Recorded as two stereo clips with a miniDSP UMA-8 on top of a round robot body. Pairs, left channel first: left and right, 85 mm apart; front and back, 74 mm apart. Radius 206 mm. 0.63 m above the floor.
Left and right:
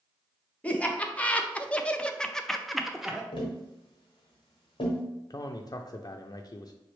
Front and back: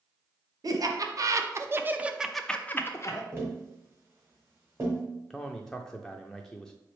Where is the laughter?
160° left, 1.1 m; by 3.2 s 10° right, 0.8 m.